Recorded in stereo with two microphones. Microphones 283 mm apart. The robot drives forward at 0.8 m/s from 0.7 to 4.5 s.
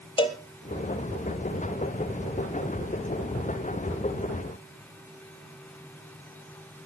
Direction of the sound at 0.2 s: 15° left (ahead or behind).